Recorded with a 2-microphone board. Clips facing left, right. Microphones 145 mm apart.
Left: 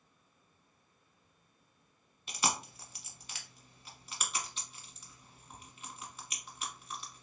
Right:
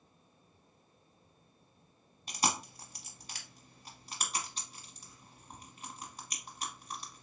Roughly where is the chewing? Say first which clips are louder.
Right 1 dB; right.